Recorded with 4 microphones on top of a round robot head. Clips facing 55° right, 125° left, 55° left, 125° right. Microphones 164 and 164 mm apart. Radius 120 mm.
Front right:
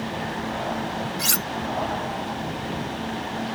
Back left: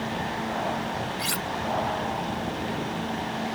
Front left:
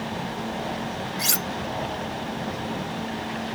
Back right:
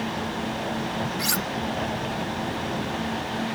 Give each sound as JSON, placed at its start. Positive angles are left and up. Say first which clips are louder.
{"t": 1.2, "sound": "cutlery clinking", "louder": "front right 1 dB, back right 2 dB", "azimuth_deg": -10}